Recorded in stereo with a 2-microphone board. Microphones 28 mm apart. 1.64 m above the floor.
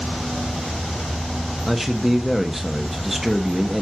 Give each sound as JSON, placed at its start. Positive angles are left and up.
{"t": 1.7, "sound": "a man speaking", "side_deg": -5, "distance_m": 0.8}